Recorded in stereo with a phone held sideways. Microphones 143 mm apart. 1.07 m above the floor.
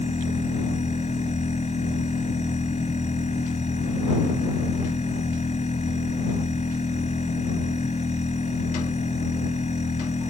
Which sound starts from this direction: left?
A machine running, at 0.0 s.